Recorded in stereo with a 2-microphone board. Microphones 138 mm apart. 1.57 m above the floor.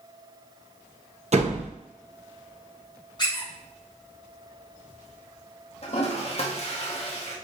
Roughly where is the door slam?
Right.